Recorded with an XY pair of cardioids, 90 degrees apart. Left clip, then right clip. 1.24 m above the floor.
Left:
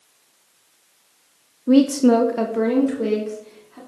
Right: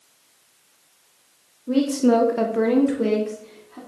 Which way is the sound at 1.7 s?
70° left.